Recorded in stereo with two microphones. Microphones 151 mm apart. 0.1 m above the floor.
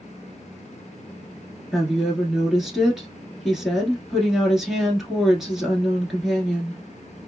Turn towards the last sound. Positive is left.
turn(degrees=0)  # may be behind; listen again after turning